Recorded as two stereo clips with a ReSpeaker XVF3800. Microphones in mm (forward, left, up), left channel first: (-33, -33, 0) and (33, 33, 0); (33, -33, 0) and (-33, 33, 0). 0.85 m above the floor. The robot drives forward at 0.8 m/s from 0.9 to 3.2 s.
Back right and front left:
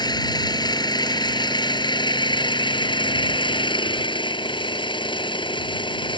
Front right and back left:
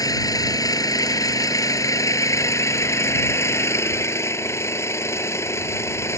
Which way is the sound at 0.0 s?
95° right.